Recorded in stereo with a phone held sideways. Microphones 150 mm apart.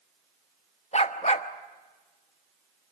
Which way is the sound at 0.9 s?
50° left (ahead or behind).